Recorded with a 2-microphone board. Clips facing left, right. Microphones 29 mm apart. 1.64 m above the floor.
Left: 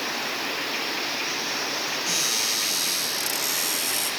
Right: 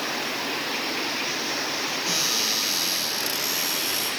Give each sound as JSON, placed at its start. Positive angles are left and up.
{"t": 2.1, "sound": "a cupboard door", "side_deg": -30, "distance_m": 8.5}